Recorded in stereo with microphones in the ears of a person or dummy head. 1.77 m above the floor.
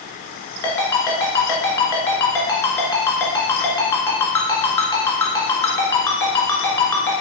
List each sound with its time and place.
0.6 s a ringtone: 20° left (ahead or behind), 1.6 m